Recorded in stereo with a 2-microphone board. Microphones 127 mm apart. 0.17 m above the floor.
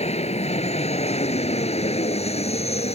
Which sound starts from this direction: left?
An aircraft, at 0.0 s.